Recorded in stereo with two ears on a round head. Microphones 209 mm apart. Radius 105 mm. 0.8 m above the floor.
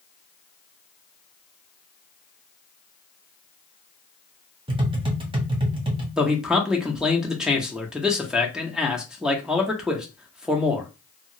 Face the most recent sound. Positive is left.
turn(degrees=-5)  # may be behind; listen again after turning